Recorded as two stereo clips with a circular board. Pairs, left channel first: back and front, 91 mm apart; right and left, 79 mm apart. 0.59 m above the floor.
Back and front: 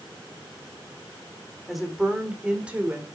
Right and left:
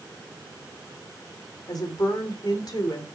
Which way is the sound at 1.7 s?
90° right.